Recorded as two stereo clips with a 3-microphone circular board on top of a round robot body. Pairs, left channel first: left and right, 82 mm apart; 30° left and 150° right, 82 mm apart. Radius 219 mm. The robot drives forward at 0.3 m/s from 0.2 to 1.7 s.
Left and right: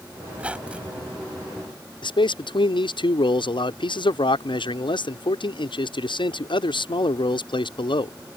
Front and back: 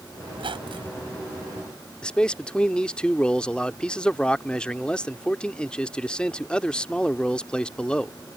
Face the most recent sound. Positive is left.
turn(degrees=110)